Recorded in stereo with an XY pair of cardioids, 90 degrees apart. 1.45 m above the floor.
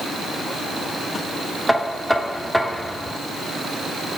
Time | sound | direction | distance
1.7 | knocking | 5° left | 2.5 m